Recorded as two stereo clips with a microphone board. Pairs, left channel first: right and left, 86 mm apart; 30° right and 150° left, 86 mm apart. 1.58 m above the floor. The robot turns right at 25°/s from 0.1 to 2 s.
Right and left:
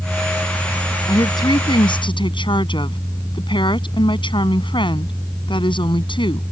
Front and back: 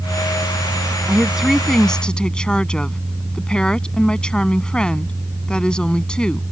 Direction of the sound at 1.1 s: 135° right.